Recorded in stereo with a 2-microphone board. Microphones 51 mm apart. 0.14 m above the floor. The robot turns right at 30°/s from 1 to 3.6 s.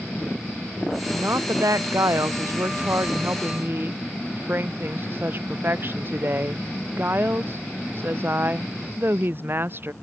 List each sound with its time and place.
1.1 s a woman speaking: 120° right; by 9.9 s 45° right